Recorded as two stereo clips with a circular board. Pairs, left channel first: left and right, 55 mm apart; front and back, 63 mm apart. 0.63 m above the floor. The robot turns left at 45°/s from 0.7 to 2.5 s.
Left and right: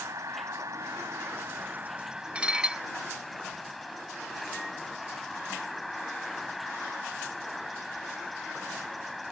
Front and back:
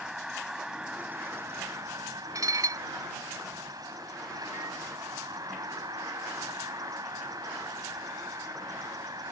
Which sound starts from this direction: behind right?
Dishes clattering, at 2.4 s.